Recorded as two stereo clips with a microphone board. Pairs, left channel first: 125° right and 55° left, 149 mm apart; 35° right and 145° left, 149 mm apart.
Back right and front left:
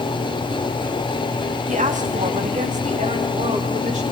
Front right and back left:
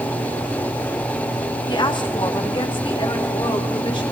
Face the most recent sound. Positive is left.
turn(degrees=20)